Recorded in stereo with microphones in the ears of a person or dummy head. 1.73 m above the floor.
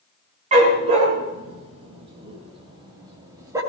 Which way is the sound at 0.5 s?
40° right (ahead or behind).